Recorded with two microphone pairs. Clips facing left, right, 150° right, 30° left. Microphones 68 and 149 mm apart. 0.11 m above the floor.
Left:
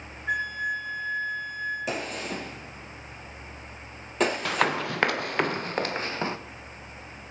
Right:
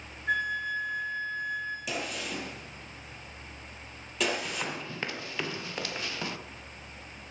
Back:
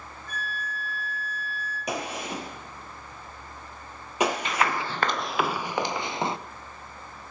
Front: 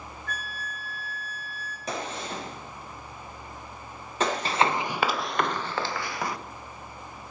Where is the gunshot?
135° left, 3.5 m.